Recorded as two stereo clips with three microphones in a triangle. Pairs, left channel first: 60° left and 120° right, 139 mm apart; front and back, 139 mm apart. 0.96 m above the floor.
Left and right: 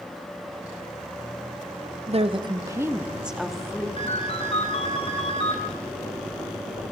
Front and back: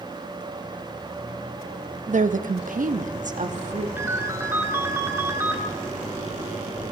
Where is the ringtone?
105° left, 2 m.